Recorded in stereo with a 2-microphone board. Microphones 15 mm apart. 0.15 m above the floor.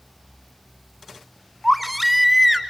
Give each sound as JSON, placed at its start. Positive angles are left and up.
{"t": 1.6, "sound": "a baby crying", "side_deg": -5, "distance_m": 1.3}